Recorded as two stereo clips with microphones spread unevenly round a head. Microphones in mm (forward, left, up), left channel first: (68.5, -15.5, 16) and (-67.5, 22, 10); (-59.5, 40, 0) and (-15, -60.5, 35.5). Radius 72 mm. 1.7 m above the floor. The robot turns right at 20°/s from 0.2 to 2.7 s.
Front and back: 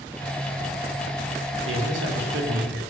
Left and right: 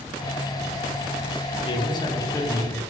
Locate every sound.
1.6 s a man speaking: 165° left, 0.7 m; by 2.8 s 175° right, 0.7 m